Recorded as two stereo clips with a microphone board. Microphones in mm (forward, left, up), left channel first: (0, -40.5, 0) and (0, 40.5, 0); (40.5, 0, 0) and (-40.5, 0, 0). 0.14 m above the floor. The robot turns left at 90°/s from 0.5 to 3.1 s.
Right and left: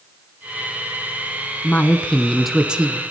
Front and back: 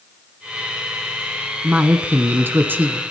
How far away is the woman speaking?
About 1.3 m.